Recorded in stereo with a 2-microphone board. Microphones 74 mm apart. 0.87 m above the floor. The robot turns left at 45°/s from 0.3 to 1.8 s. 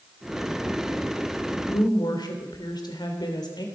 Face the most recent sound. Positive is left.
turn(degrees=75)  # may be behind; listen again after turning